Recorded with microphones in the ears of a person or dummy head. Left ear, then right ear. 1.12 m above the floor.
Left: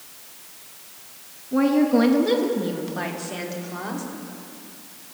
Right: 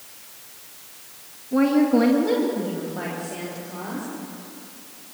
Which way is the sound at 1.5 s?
10° right (ahead or behind).